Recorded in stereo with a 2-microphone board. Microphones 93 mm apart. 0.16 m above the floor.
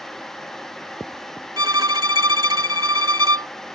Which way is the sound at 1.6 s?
50° right (ahead or behind).